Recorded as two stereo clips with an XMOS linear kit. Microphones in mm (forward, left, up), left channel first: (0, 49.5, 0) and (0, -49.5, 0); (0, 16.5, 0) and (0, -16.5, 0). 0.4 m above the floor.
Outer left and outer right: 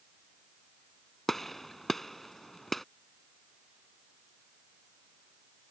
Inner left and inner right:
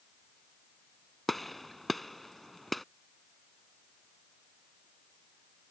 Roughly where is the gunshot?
Centre.